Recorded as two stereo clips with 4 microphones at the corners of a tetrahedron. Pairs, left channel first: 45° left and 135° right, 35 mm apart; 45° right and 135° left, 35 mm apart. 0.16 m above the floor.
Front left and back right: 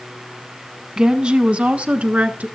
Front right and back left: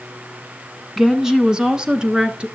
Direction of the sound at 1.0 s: 155° right.